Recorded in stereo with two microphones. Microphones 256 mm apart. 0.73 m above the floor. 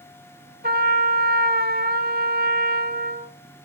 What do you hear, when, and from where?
0.6 s a trumpet: 40° right (ahead or behind), 0.7 m